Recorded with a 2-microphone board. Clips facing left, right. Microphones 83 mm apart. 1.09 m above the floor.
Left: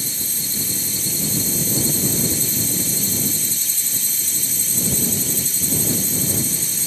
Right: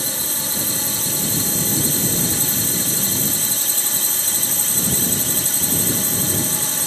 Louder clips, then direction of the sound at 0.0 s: Right 5 dB; 65° right (ahead or behind).